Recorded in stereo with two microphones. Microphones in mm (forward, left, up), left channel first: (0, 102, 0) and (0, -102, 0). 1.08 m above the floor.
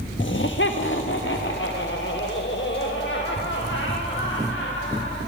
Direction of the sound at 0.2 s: 75° left (ahead or behind).